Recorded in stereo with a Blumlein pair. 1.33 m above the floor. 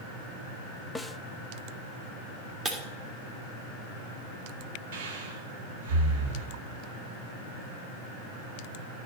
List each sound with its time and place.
0.9 s a snare drum: 5° left, 0.6 m
2.6 s breaking glass: 20° right, 2 m
4.9 s breathing: 55° right, 1.9 m